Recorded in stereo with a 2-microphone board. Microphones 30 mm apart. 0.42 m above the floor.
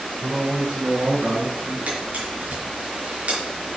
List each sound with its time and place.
0.2 s a man speaking: 70° right (ahead or behind), 6 m; by 1.8 s 50° right (ahead or behind), 6 m
1.9 s a camera shutter: 55° right (ahead or behind), 5.5 m